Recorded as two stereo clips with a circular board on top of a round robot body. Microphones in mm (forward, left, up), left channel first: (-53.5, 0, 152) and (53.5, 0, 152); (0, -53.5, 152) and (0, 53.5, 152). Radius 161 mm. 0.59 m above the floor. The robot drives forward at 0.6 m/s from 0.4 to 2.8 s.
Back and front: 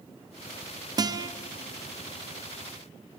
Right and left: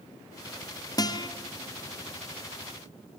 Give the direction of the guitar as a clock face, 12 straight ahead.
1 o'clock.